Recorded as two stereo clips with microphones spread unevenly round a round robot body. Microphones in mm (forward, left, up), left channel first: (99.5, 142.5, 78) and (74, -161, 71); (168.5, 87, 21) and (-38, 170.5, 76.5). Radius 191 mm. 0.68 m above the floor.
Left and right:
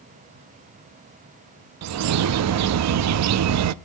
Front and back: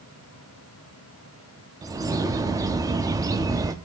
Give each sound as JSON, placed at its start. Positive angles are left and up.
{"t": 1.8, "sound": "a bird", "azimuth_deg": -115, "distance_m": 0.5}